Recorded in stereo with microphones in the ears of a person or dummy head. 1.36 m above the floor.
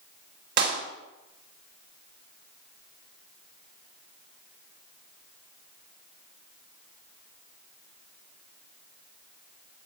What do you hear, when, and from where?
0.6 s a clap: 55° right (ahead or behind), 3 m